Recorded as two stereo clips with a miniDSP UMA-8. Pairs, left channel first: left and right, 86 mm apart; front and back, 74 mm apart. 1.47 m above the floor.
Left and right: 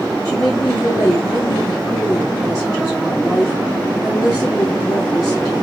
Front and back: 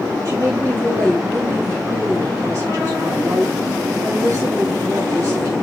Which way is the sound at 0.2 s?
140° left.